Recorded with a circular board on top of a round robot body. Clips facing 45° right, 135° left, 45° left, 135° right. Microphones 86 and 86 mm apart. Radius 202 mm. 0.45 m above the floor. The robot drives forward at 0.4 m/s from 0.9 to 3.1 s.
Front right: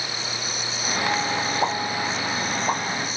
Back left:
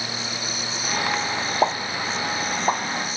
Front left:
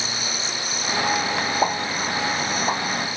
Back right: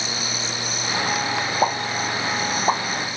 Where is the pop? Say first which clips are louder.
Back left 1 dB, back right 3 dB; 140° left, 1.2 m; by 2.8 s 155° left, 1.5 m.